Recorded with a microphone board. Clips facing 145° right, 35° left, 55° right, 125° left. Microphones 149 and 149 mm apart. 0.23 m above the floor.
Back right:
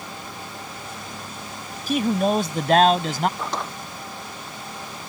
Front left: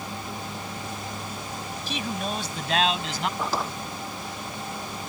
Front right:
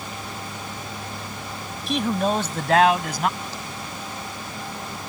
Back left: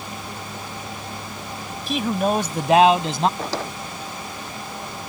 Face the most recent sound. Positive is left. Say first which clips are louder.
# front left 1 dB, back left 7 dB
turn(degrees=120)